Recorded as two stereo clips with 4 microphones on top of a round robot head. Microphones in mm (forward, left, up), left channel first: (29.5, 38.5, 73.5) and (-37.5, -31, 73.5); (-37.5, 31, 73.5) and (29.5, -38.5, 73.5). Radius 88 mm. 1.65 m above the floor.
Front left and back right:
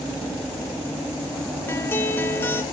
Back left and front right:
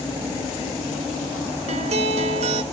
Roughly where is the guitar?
Ahead right.